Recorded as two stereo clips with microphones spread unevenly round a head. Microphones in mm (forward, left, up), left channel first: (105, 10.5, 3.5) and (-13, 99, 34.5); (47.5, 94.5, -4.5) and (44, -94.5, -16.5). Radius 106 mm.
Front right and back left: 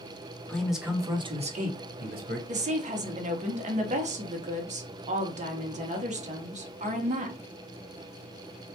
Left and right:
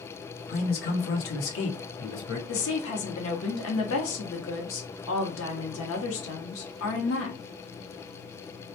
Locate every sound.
0.5 s a man speaking: 40° left, 0.9 m; by 2.4 s 130° left, 1.2 m
2.5 s a woman speaking: 100° left, 0.7 m